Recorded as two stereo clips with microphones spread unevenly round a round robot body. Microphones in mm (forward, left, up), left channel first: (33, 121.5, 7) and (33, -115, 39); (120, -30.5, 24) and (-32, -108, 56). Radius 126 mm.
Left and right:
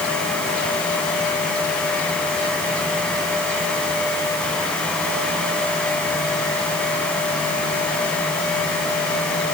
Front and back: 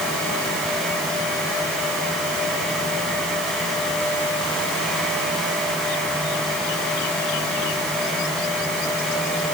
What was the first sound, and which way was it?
Only background noise.